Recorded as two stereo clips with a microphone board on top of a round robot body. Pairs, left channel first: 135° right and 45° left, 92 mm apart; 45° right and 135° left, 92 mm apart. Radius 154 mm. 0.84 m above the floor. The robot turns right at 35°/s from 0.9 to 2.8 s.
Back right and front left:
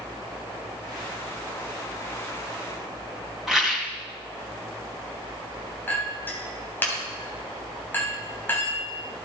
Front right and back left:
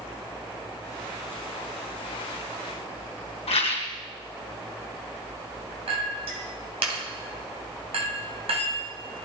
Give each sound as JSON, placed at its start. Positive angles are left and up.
{"t": 3.5, "sound": "a rattle", "azimuth_deg": -40, "distance_m": 2.5}
{"t": 5.9, "sound": "a clink", "azimuth_deg": 155, "distance_m": 3.5}